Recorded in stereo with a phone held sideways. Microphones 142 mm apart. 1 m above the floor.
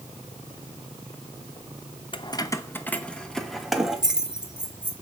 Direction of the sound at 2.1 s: 40° left (ahead or behind).